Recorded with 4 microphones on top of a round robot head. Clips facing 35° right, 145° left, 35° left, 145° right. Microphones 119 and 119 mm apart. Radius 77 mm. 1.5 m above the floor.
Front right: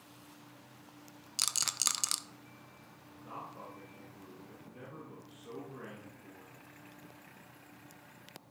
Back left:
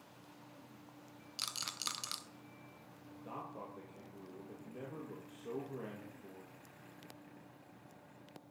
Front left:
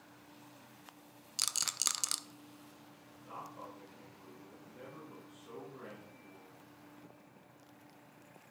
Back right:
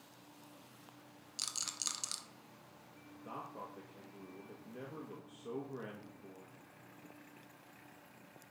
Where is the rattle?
5° left, 0.5 m.